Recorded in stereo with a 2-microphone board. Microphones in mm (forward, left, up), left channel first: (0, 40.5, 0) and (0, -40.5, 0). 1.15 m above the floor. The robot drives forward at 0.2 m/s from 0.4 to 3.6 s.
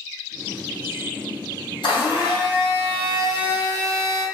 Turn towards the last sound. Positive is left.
turn(degrees=70)  # may be behind; listen again after turning